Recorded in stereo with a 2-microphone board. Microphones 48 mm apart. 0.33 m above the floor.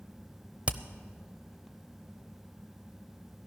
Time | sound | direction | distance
0.7 | hammering | 25° right (ahead or behind) | 0.7 m